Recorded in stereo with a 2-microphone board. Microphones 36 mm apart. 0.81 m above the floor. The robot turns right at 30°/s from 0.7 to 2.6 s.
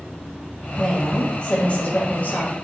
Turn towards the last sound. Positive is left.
turn(degrees=75)